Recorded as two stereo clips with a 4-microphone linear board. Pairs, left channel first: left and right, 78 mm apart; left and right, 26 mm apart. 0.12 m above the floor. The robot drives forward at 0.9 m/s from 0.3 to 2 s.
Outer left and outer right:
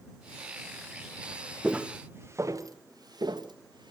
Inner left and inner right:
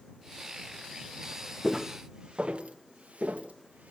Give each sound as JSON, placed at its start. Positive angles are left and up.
{"t": 1.6, "sound": "footsteps", "side_deg": -10, "distance_m": 1.2}